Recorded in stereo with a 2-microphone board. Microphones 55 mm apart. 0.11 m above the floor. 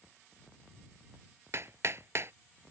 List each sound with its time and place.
1.5 s hammering: 55° right (ahead or behind)